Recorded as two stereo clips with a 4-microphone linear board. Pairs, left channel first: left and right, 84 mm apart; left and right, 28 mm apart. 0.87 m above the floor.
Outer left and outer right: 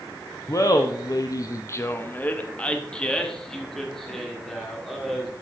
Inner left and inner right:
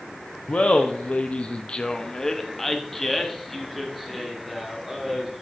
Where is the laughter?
40° left (ahead or behind), 0.7 m; by 5.3 s centre (ahead or behind), 2.5 m.